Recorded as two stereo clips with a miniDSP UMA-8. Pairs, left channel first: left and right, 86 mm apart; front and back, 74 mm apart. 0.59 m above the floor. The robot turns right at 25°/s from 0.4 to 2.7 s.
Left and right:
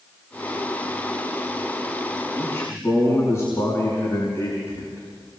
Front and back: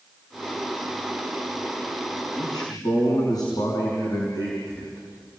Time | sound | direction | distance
2.4 | a man speaking | 20° left | 5.5 m